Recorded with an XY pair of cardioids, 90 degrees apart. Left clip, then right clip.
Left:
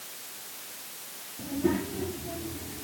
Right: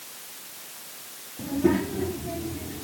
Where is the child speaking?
35° right; by 2.8 s 40° right.